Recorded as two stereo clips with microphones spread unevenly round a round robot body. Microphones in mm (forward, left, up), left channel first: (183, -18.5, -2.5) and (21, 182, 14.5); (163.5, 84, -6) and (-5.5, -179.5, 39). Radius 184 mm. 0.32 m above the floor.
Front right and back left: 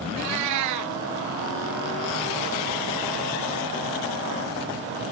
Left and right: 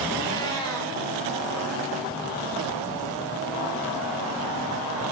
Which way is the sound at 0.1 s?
140° left.